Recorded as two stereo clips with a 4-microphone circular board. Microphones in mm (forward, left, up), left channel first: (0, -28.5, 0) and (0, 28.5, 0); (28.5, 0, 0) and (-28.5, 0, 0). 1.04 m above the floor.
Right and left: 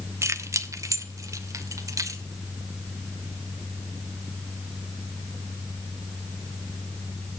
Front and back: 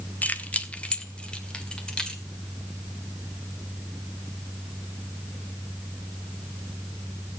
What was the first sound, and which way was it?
Keys jangling, 60° left.